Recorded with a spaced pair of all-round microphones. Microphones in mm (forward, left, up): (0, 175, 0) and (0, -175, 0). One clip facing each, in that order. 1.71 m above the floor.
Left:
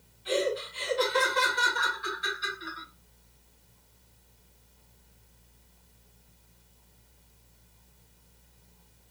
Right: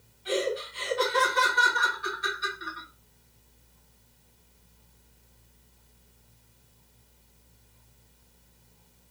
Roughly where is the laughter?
Right.